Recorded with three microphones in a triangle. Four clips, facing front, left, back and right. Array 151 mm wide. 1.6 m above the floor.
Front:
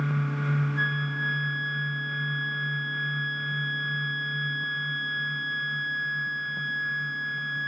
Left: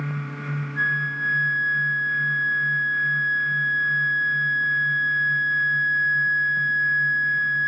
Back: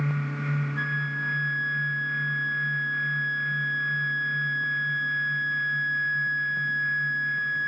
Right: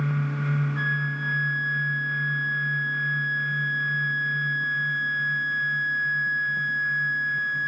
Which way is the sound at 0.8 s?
115° right.